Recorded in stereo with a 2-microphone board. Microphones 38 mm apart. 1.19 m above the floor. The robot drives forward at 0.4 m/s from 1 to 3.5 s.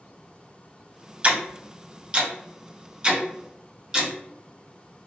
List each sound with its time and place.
1.2 s ticking: 35° right (ahead or behind), 0.8 m; by 4.1 s 15° right (ahead or behind), 1.6 m